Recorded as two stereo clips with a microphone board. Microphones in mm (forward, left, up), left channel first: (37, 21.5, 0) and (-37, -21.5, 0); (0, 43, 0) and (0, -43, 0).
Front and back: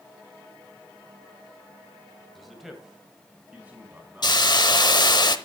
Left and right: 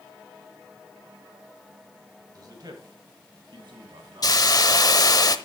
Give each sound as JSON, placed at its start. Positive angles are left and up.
{"t": 2.4, "sound": "a man speaking", "azimuth_deg": -55, "distance_m": 1.9}
{"t": 4.2, "sound": "a hiss", "azimuth_deg": 55, "distance_m": 0.8}